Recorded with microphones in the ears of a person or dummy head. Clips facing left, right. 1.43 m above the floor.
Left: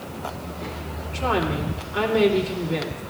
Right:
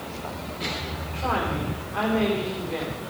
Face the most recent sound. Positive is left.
turn(degrees=65)  # may be behind; listen again after turning